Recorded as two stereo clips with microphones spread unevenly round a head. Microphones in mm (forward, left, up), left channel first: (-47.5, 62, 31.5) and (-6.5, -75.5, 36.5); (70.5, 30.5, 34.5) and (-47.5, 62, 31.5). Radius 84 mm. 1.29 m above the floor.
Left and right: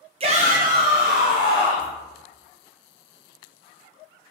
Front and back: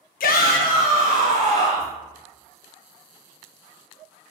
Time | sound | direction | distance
0.2 | a shout | 15° right | 0.6 m